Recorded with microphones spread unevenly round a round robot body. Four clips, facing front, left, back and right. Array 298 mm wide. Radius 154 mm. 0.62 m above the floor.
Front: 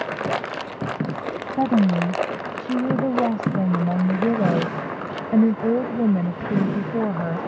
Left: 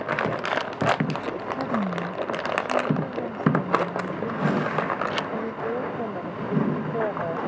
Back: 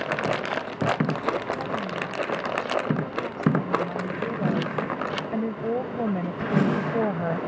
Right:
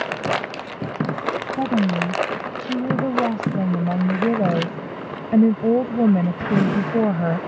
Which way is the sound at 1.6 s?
25° right.